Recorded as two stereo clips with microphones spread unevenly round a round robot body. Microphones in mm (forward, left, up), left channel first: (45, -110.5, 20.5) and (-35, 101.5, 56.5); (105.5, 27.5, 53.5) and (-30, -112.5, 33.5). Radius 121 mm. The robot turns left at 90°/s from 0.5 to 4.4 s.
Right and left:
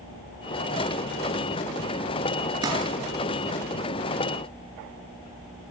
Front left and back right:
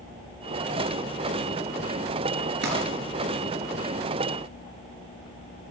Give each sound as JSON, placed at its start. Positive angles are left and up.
{"t": 2.6, "sound": "crumpling", "azimuth_deg": -175, "distance_m": 4.5}